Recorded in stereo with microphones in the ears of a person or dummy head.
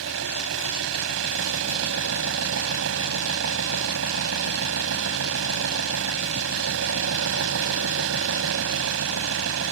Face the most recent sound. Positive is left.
turn(degrees=-80)